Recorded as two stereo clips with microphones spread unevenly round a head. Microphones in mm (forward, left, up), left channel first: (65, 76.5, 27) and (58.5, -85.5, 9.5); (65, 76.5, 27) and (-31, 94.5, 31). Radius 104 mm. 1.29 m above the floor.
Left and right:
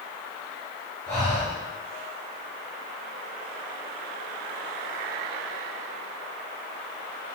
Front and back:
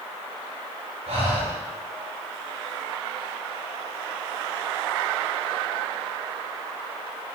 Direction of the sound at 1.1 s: 150° left.